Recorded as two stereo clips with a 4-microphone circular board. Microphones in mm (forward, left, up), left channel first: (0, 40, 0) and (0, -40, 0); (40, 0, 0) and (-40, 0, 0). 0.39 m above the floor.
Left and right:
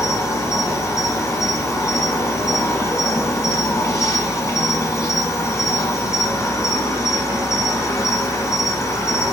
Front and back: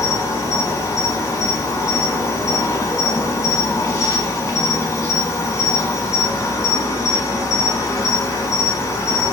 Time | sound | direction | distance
0.0 | an insect | 45° left | 1.3 m